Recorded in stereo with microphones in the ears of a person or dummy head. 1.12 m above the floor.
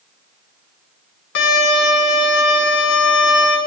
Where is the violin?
65° left (ahead or behind), 3 m.